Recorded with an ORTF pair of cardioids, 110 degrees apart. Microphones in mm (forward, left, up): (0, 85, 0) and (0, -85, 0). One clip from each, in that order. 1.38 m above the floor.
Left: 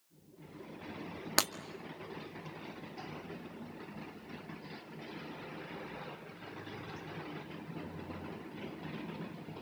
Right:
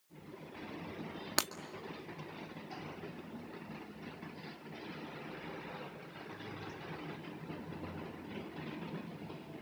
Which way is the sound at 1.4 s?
15° left.